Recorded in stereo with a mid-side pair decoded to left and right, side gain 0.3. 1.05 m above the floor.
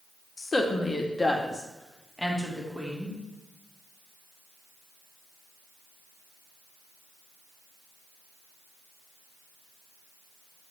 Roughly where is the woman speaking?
Ahead left.